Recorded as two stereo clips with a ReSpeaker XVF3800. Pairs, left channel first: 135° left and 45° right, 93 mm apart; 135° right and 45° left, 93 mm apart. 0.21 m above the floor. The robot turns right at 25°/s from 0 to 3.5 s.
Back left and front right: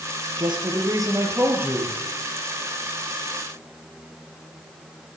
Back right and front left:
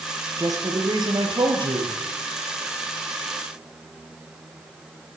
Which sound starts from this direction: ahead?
A man speaking, at 0.4 s.